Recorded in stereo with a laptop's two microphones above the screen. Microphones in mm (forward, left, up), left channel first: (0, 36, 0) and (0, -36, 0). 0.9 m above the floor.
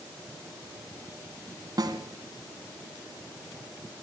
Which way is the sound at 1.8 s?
55° right (ahead or behind).